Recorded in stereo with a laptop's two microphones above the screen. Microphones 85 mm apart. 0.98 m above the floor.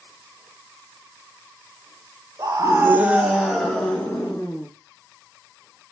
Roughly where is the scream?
Right.